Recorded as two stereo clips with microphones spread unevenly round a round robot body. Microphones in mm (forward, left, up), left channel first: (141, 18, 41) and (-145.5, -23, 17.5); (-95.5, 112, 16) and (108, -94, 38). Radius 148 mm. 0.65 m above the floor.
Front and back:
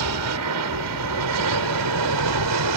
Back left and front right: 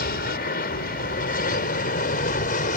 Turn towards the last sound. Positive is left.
turn(degrees=-165)